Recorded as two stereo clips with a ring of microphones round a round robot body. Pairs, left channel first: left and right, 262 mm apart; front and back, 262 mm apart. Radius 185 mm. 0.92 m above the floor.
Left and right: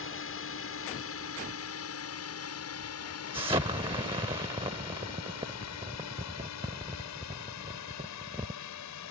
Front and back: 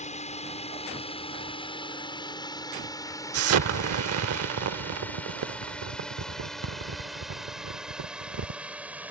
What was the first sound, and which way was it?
A drone, 60° left.